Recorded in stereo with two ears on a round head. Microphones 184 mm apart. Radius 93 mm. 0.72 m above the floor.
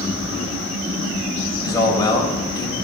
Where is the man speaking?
20° left (ahead or behind), 3.5 m.